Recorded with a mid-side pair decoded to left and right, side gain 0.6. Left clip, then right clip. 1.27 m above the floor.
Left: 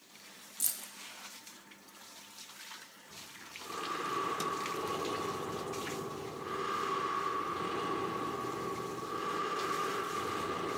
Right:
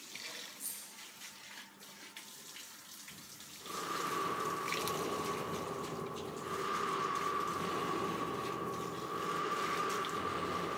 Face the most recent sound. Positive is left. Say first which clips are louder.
# left 4 dB
turn(degrees=0)